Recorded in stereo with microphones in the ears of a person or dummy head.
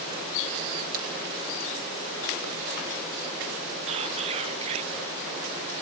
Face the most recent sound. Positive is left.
turn(degrees=-35)  # may be behind; listen again after turning